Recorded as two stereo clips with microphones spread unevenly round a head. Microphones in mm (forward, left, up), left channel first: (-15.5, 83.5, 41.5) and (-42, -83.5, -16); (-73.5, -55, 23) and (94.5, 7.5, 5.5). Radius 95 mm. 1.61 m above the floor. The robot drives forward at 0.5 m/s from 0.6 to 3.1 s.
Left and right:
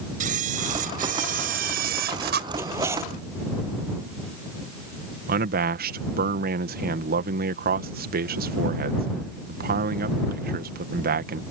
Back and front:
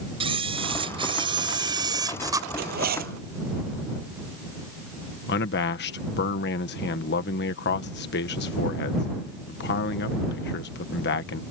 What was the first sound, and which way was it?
A camera shutter, 40° right.